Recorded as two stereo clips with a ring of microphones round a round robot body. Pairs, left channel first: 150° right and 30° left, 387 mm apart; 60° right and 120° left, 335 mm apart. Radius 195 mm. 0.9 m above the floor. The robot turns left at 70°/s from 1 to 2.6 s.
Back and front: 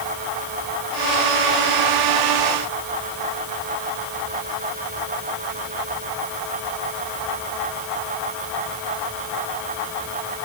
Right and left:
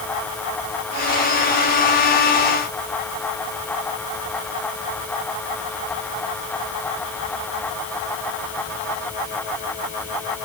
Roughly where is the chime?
No chime in this recording.